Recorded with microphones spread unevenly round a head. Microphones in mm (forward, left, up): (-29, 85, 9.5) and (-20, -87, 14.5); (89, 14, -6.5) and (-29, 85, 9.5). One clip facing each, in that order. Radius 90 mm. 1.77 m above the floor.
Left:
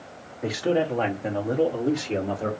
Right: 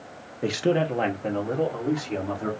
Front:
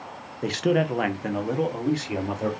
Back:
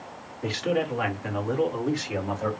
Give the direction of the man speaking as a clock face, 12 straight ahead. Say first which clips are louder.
Even, front 3 dB; 2 o'clock.